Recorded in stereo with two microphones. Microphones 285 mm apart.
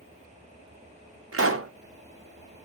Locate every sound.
1.3 s a pop: 50° right (ahead or behind), 0.5 m